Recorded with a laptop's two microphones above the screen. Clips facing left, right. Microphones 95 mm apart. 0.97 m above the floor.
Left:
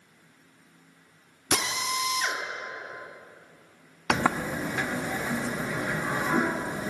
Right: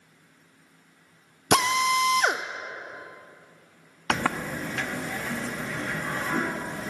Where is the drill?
60° right (ahead or behind), 0.8 m.